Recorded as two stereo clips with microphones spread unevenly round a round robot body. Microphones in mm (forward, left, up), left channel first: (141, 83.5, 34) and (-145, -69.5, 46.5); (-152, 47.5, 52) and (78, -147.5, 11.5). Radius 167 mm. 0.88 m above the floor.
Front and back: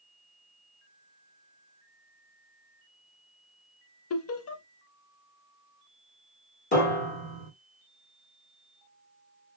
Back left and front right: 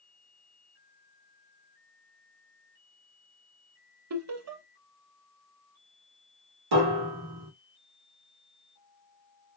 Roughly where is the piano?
Ahead right.